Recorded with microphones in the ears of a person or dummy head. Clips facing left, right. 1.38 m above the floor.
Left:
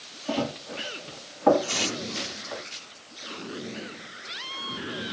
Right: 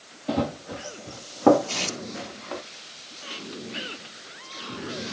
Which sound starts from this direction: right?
Running footsteps, at 0.3 s.